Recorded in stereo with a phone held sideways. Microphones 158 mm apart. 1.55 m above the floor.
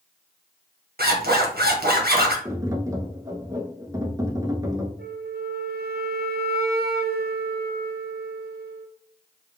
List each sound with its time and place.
1.0 s a zipper: 80° right, 1.2 m
2.5 s tapping: 20° right (ahead or behind), 0.8 m
5.0 s a flute: 80° right, 0.5 m